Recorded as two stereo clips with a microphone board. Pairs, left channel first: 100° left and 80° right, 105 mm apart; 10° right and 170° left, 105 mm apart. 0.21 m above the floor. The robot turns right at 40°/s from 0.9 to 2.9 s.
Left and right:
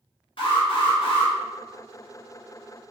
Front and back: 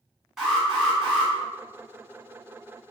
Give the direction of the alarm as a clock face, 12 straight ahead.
9 o'clock.